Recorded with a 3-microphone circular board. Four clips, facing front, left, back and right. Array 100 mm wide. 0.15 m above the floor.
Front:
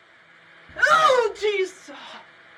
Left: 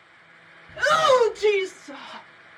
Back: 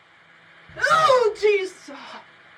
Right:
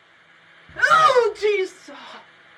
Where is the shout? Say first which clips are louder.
Right 3 dB, even; 75° right, 1.6 m; by 2.3 s 160° left, 1.6 m.